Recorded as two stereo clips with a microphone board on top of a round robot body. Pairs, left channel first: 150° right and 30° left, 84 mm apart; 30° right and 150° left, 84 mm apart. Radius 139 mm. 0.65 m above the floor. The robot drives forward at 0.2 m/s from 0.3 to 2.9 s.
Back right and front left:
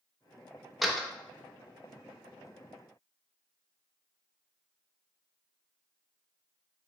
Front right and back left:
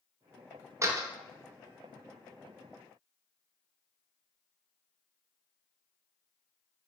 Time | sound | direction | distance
0.8 | a door slam | 120° left | 0.7 m